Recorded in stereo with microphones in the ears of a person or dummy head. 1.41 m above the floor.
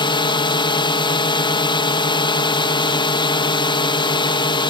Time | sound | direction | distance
0.0 | a drone | 30° left (ahead or behind) | ?